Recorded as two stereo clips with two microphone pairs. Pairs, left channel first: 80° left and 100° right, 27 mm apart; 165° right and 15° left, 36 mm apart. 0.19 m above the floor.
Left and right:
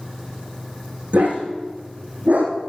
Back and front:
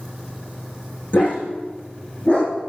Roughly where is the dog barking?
Behind right.